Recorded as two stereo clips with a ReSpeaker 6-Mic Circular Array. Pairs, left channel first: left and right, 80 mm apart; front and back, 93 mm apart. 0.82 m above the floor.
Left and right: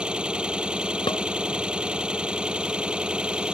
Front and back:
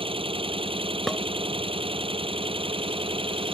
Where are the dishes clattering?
90° left.